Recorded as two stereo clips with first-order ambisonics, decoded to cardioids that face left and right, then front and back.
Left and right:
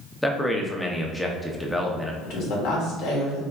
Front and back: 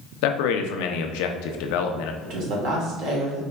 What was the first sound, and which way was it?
A man speaking, 5° left.